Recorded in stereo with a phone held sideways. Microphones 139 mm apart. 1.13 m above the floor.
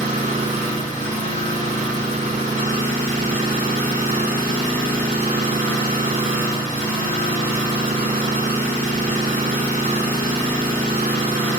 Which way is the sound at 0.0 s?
85° right.